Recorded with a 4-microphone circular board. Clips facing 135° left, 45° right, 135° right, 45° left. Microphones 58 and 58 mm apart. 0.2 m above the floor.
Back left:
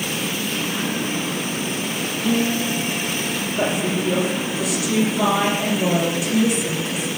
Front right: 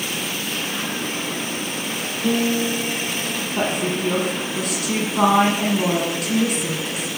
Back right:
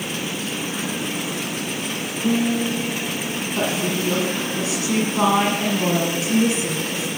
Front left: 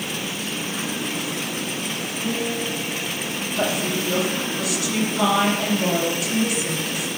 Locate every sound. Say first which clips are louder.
2.2 s a guitar: front right 1 dB, back right 6 dB; 60° right, 3.5 m
3.6 s a woman speaking: even, even; 75° right, 5.5 m